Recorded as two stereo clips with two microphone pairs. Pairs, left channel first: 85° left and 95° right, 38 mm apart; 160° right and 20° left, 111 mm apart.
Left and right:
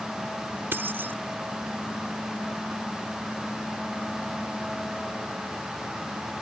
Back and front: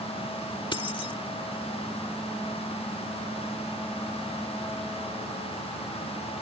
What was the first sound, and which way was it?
Keys jangling, 115° right.